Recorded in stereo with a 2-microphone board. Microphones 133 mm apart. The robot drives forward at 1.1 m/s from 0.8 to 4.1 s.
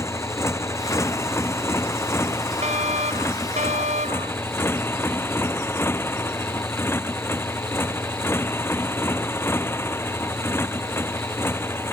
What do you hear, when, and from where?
0.0 s a motorcycle: 20° left (ahead or behind)
2.6 s a fire alarm: 65° right (ahead or behind); by 4.3 s 70° right (ahead or behind)